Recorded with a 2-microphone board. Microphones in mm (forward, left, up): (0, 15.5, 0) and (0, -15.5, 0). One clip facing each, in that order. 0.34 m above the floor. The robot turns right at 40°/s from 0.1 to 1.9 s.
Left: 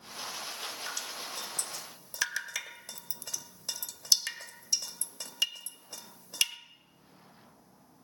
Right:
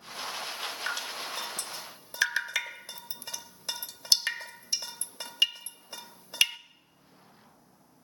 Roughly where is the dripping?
Right.